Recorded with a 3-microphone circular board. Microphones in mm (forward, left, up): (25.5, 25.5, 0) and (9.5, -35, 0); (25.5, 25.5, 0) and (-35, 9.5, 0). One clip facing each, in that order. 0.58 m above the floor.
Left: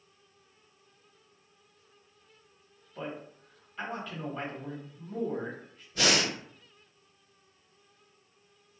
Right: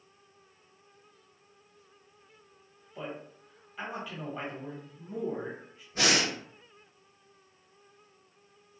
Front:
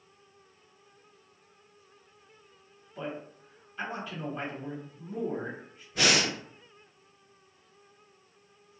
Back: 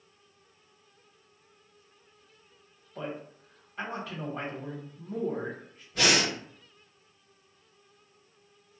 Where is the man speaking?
175° left, 1.2 m.